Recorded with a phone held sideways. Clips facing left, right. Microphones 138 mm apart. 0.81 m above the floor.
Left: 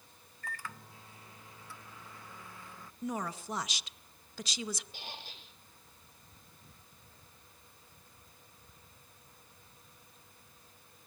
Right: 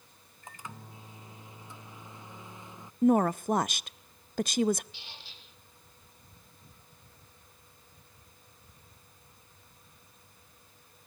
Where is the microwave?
20° right (ahead or behind), 0.8 m.